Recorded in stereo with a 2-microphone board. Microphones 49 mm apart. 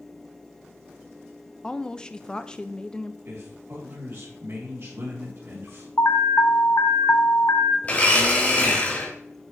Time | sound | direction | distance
1.6 | a woman speaking | 15° left (ahead or behind) | 0.6 m
3.2 | a man speaking | 55° right (ahead or behind) | 3 m
6.0 | an alarm | 60° left (ahead or behind) | 0.9 m
7.8 | a blender | 30° left (ahead or behind) | 2 m